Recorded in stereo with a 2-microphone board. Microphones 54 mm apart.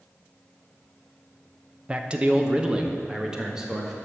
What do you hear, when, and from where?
1.9 s a man speaking: 20° right (ahead or behind), 0.7 m; by 4.0 s 10° right (ahead or behind), 1.9 m